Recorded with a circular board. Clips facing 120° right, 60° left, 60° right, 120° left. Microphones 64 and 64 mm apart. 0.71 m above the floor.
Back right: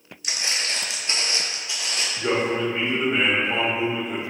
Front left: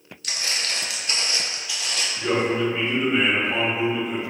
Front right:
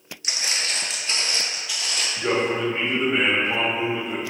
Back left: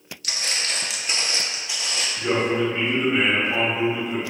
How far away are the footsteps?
About 0.7 m.